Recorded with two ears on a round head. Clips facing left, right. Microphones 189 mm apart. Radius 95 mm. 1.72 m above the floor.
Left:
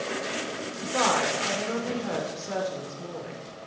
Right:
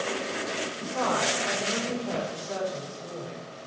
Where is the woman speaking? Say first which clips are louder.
Left 2 dB; 80° left, 3 m.